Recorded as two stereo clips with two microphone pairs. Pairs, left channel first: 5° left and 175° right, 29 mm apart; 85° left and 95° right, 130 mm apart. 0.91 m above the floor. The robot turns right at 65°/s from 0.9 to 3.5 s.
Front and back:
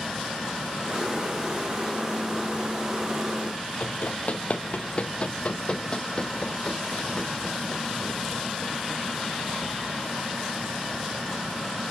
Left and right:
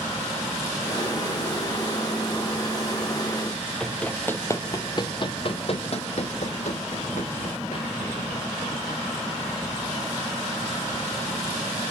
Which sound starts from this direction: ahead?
Running footsteps, at 3.8 s.